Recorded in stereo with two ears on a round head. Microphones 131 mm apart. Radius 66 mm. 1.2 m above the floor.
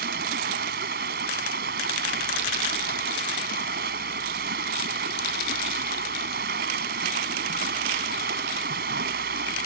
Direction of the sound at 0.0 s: 80° right.